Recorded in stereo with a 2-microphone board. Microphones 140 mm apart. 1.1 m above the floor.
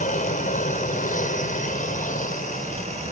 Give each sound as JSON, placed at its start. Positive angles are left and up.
{"t": 0.0, "sound": "an aircraft", "side_deg": 65}